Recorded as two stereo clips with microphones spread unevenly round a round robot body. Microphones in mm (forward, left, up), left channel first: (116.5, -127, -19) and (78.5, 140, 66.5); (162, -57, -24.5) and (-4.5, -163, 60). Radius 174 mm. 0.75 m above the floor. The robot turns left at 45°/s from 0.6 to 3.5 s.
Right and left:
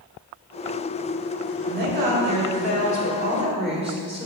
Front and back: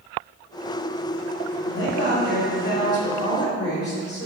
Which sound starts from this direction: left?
A woman speaking, at 1.6 s.